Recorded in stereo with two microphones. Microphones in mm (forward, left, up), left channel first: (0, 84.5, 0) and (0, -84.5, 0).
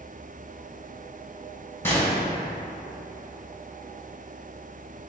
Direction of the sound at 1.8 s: 15° left (ahead or behind).